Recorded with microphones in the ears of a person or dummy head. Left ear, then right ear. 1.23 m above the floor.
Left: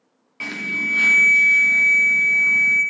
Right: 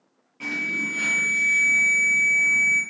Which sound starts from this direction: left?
An alarm, at 0.4 s.